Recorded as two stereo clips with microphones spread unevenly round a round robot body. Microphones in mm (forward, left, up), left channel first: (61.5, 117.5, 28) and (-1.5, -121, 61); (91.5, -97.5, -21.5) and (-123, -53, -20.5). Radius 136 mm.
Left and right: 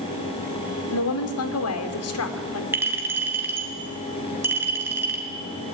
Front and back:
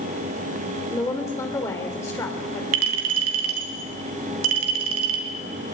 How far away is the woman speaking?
About 2.5 m.